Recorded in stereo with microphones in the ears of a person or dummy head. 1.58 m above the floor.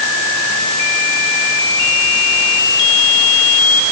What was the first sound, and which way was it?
Only background noise.